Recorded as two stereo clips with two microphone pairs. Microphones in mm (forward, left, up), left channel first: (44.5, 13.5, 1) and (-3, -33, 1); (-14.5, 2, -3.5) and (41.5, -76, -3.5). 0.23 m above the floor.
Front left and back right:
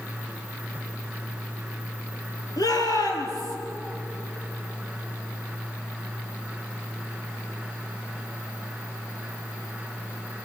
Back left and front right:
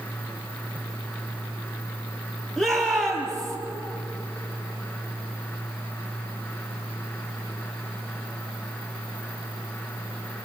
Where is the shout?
40° left, 5 m.